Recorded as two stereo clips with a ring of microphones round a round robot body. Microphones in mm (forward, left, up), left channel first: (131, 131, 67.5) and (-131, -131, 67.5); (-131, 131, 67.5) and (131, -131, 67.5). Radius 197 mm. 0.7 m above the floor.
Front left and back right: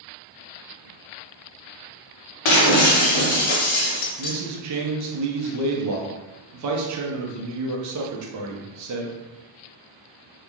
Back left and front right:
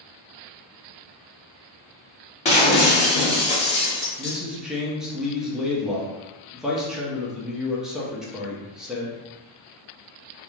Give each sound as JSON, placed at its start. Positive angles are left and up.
{"t": 2.5, "sound": "breaking glass", "azimuth_deg": 60, "distance_m": 0.7}
{"t": 4.2, "sound": "a man speaking", "azimuth_deg": -135, "distance_m": 0.7}